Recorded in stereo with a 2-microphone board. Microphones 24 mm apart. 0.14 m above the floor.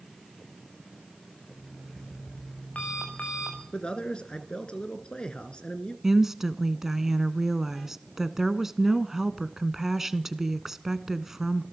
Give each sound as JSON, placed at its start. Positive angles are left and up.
{"t": 1.5, "sound": "an alarm clock", "side_deg": 80, "distance_m": 5.0}
{"t": 3.7, "sound": "a man speaking", "side_deg": 40, "distance_m": 2.0}
{"t": 6.0, "sound": "a woman speaking", "side_deg": -20, "distance_m": 1.0}